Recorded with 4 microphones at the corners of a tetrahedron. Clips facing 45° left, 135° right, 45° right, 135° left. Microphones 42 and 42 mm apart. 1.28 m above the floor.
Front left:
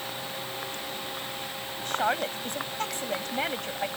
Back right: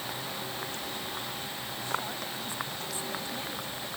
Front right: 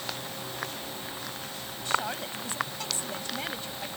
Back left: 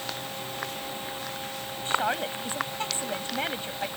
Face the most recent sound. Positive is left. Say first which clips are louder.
# front left 9 dB, back left 3 dB
turn(degrees=75)